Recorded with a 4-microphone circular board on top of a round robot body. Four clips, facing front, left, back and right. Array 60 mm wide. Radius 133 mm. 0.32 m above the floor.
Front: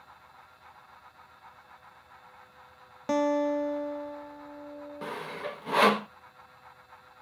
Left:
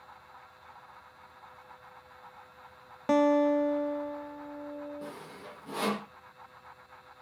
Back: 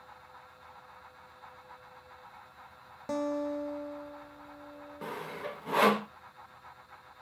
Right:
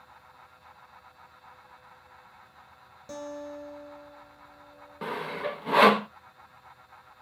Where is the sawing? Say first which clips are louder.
Right 11 dB, front 2 dB; 75° right, 1.0 m.